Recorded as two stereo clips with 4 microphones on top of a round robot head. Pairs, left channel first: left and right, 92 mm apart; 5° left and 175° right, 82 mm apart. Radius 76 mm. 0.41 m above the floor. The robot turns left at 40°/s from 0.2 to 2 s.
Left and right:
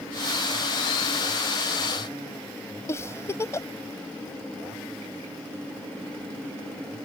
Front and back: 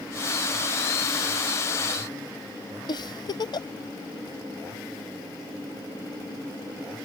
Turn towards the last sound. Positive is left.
turn(degrees=30)